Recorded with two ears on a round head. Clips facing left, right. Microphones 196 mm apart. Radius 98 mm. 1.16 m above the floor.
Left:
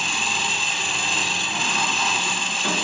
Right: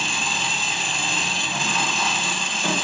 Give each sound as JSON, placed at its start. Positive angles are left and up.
{"t": 0.0, "sound": "an engine running", "side_deg": -40, "distance_m": 0.8}